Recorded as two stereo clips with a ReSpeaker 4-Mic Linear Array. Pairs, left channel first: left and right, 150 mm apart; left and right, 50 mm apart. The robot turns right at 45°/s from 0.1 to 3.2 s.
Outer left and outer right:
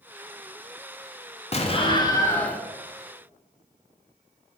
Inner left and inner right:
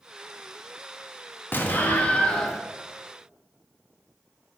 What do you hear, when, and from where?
1.5 s an explosion: 125° left, 0.7 m; by 2.6 s 175° left, 0.7 m